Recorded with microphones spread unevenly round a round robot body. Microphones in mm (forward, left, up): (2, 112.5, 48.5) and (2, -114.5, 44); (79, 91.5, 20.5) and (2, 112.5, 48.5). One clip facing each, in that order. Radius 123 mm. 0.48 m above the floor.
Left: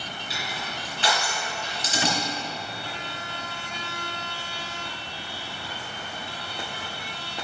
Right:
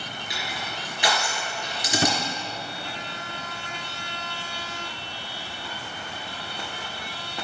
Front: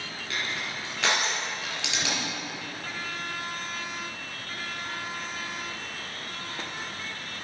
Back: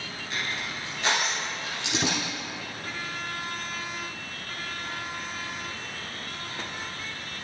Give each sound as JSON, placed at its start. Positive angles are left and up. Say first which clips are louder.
{"t": 0.3, "sound": "crushing", "louder": "even, even", "azimuth_deg": -15, "distance_m": 3.0}
{"t": 1.9, "sound": "a drawer", "louder": "right 3 dB, back 4 dB", "azimuth_deg": -140, "distance_m": 0.8}